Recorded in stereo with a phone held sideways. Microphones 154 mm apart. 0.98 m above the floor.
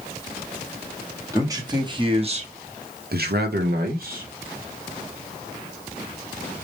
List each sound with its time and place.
1.3 s a man speaking: 20° right (ahead or behind), 1.3 m; by 4.3 s 55° right (ahead or behind), 1.0 m